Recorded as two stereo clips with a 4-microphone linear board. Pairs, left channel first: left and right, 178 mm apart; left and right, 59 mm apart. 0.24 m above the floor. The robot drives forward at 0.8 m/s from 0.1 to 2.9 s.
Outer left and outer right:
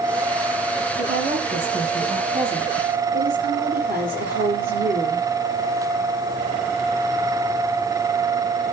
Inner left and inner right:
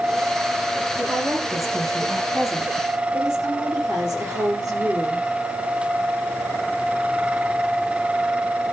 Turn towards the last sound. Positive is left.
turn(degrees=-70)  # may be behind; listen again after turning